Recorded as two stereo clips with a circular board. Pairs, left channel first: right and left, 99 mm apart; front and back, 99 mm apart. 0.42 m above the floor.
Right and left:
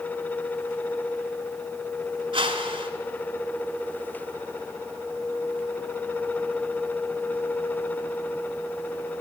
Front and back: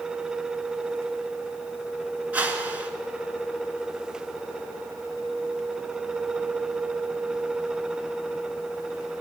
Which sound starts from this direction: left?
A whoosh, at 2.3 s.